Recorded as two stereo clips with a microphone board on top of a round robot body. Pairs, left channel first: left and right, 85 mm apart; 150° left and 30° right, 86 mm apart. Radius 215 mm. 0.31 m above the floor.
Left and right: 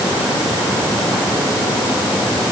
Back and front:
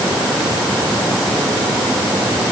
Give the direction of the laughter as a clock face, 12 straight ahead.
I don't hear laughter.